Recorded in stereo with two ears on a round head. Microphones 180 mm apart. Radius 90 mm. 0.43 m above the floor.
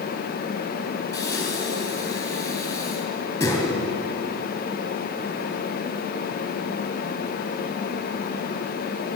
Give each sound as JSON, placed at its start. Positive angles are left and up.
{"t": 1.1, "sound": "breathing", "side_deg": 15, "distance_m": 3.5}